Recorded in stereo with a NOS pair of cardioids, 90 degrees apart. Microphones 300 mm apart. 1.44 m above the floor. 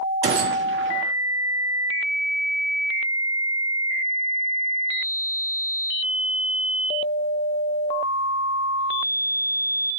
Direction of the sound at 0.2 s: 40° right.